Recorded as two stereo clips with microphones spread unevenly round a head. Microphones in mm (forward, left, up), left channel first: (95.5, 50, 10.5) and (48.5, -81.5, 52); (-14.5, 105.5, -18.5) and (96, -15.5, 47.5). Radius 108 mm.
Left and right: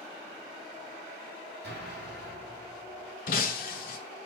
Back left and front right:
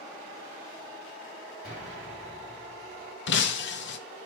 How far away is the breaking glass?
About 0.7 m.